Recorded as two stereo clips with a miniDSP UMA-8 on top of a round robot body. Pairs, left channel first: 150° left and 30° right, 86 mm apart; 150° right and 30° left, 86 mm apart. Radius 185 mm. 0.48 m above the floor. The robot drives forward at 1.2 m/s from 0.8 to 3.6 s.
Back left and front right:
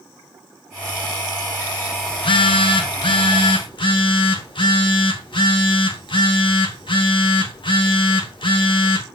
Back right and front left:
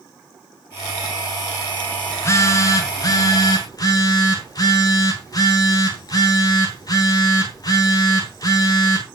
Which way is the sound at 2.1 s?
150° left.